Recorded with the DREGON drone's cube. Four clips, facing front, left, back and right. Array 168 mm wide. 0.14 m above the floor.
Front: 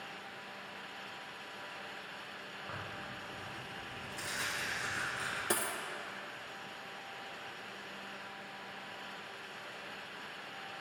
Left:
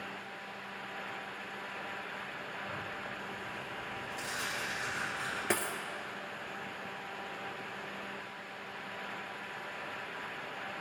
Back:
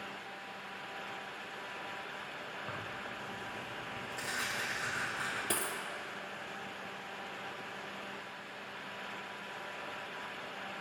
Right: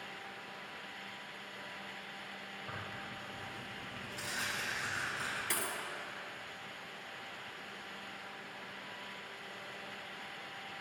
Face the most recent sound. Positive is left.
turn(degrees=85)